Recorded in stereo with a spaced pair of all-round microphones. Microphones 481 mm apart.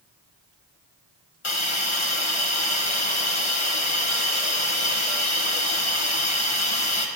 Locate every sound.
1.4 s a hiss: 80° left, 2 m